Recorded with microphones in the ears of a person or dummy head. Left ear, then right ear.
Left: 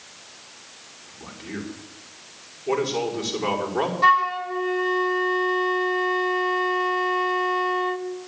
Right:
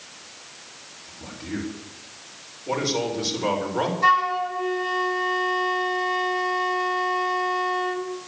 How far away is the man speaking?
About 5 m.